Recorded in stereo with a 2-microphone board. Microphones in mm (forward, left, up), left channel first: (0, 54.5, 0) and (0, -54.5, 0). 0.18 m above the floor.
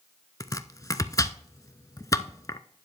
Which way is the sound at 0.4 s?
30° left (ahead or behind).